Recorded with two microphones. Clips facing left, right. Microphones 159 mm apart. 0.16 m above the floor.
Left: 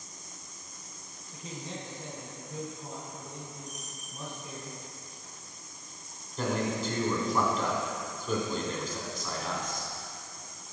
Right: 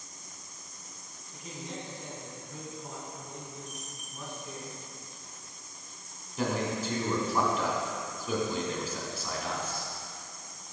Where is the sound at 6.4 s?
10° right (ahead or behind), 1.1 m.